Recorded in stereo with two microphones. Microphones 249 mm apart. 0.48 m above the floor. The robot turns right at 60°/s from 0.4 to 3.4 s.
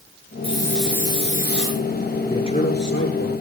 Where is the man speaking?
10° left, 6.5 m; by 3.3 s 75° left, 6.5 m.